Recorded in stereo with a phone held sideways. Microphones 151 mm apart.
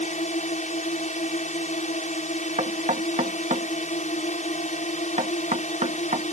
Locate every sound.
0.0 s a drone: 50° left (ahead or behind)
2.6 s knocking: 50° right (ahead or behind)